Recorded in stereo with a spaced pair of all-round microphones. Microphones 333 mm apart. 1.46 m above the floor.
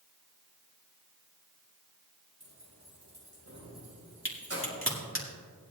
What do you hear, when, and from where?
2.4 s keys jangling: 50° right (ahead or behind), 3.5 m; by 4.8 s 45° right (ahead or behind), 6 m
4.2 s a crack: 40° left (ahead or behind), 2 m